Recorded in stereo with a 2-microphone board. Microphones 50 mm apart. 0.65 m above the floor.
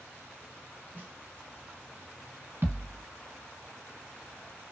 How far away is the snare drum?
About 1.5 m.